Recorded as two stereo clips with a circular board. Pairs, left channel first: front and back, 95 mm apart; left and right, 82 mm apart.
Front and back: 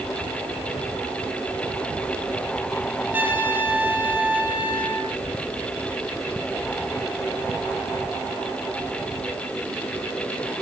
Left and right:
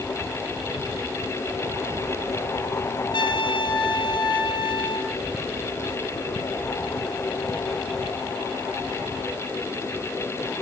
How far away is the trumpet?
About 2.5 m.